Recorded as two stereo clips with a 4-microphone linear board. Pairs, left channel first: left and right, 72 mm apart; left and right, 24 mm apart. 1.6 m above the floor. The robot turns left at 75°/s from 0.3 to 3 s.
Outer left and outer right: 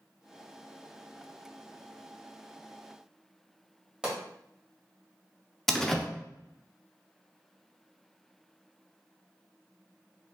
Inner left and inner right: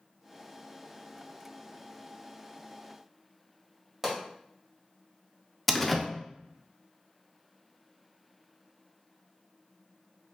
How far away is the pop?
About 1.7 m.